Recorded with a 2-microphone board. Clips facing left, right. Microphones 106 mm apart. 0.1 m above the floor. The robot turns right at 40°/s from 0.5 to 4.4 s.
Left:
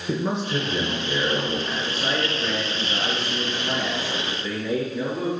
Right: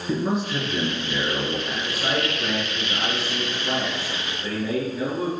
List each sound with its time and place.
0.1 s a man speaking: 125° left, 1.6 m; by 1.6 s 170° left, 1.6 m
1.7 s a man speaking: 5° right (ahead or behind), 1.4 m; by 5.3 s 25° right (ahead or behind), 1.4 m